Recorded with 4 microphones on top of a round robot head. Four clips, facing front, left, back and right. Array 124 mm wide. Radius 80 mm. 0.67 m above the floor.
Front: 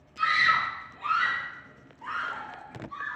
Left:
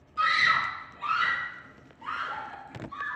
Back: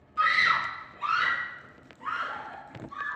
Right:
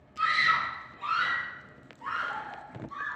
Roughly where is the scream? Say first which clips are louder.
Left 1 dB, even; behind.